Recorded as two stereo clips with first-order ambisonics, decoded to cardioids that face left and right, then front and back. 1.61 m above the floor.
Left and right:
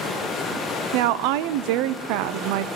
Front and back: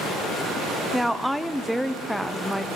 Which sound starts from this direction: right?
A woman speaking, at 0.9 s.